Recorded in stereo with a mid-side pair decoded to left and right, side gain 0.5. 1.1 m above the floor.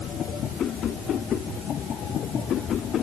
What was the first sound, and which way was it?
Only background noise.